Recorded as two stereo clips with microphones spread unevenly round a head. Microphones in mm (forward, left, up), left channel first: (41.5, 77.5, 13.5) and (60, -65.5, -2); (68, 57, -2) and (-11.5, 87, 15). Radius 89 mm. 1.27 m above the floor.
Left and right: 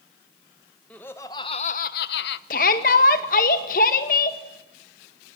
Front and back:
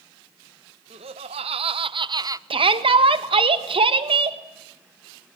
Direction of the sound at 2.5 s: 145° left.